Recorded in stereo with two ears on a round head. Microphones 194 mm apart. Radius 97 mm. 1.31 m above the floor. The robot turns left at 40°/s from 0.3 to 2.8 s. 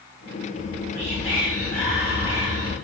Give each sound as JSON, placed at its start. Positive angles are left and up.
{"t": 0.6, "sound": "whispering", "azimuth_deg": 60, "distance_m": 1.3}